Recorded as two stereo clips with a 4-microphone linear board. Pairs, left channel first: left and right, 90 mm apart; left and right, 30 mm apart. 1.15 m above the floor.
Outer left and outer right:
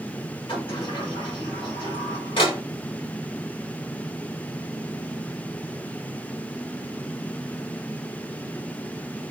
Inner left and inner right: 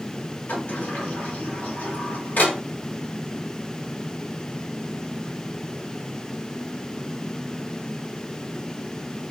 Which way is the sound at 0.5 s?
80° left.